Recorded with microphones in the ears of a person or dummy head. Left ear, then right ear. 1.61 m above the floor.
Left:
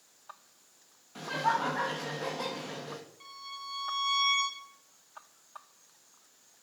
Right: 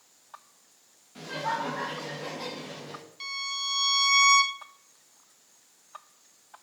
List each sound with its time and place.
1.1 s laughter: 20° left (ahead or behind), 1.9 m
3.2 s a violin: 85° right, 1.2 m